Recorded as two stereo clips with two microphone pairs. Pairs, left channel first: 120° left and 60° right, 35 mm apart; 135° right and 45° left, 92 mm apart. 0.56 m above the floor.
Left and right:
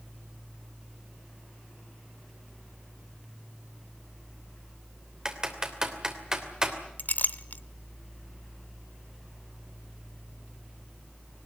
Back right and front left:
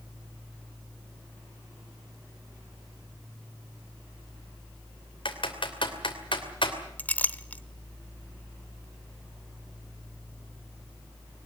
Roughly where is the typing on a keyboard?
Behind right.